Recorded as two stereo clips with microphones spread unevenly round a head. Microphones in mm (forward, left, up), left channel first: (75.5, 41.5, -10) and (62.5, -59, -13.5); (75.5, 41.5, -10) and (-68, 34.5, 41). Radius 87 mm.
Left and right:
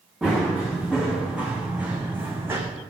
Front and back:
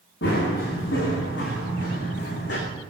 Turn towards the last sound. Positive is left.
turn(degrees=-30)